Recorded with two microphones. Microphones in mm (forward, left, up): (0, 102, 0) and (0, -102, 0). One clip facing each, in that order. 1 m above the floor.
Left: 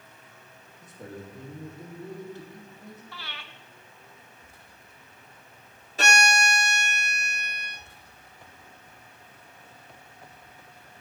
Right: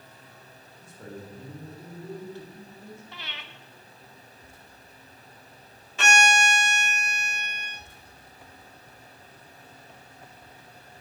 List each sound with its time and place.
0.8 s a man speaking: 20° left (ahead or behind), 2 m
3.1 s breathing: 20° right (ahead or behind), 0.6 m
6.0 s a violin: 35° left (ahead or behind), 0.9 m